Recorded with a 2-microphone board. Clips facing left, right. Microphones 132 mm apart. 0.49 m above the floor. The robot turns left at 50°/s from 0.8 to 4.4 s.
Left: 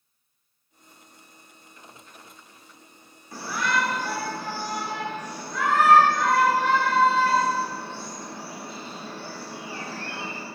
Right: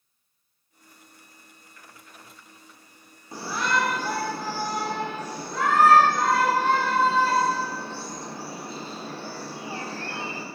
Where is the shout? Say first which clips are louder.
Even; 35° right, 1.3 m; by 10.4 s 90° right, 1.3 m.